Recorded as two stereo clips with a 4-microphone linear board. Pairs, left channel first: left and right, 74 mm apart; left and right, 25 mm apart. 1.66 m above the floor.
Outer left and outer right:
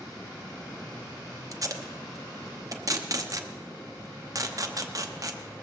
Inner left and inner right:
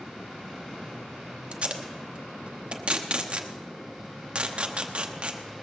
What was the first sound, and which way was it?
Tape being pulled, 50° right (ahead or behind).